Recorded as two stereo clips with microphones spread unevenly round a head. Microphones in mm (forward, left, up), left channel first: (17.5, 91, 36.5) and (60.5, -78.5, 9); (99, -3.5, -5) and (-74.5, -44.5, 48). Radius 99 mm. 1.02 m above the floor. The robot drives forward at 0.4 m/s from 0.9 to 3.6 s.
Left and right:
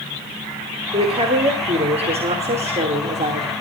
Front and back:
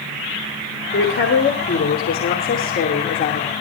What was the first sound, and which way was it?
A woman speaking, 20° right.